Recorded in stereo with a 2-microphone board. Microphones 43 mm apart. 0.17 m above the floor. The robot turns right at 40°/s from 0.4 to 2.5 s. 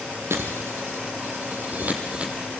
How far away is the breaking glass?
About 4.5 m.